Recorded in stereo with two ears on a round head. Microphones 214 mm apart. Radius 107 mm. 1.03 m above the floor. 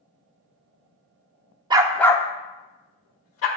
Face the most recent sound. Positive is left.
turn(degrees=65)  # may be behind; listen again after turning